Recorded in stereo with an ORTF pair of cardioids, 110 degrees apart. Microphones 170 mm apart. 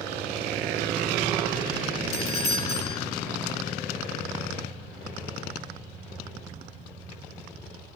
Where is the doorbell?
35° left, 1.9 m.